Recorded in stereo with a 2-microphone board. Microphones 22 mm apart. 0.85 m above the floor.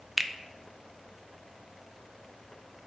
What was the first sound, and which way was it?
A finger snap, 15° right (ahead or behind).